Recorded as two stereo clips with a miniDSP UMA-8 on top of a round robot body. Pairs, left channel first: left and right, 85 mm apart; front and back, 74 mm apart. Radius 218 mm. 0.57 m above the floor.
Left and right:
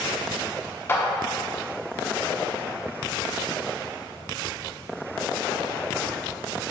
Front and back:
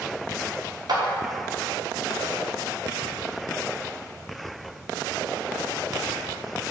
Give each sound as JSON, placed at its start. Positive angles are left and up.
{"t": 0.9, "sound": "a clap", "azimuth_deg": 155, "distance_m": 1.3}